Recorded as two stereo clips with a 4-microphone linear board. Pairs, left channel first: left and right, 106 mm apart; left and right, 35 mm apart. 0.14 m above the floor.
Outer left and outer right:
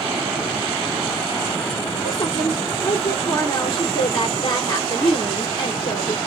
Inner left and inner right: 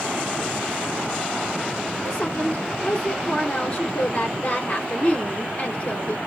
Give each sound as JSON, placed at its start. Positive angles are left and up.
{"t": 2.0, "sound": "a woman speaking", "side_deg": 35, "distance_m": 2.5}